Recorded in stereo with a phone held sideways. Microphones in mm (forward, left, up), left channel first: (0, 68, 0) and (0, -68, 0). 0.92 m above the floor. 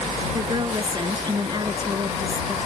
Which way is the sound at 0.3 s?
35° right (ahead or behind).